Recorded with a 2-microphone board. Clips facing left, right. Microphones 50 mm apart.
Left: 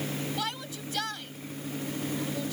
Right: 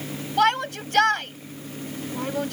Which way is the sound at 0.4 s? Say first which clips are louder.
Right 14 dB; 60° right (ahead or behind).